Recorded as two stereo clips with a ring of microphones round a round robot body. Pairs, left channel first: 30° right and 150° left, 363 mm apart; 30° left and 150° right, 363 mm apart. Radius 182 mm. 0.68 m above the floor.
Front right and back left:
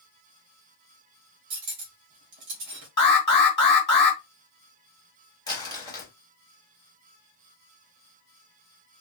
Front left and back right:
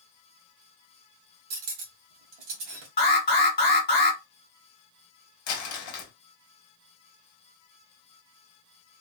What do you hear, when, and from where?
1.5 s cutlery clinking: 165° right, 1.0 m
3.0 s an alarm: 5° right, 2.0 m
5.5 s crumpling: 45° left, 1.1 m